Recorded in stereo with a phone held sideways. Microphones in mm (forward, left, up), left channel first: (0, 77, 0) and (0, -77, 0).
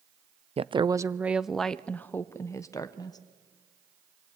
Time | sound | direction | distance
0.6 | a woman speaking | 40° right (ahead or behind) | 0.6 m